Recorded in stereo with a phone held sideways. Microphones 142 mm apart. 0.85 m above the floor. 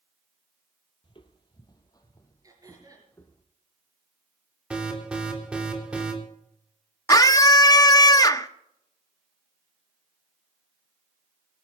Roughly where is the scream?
Left.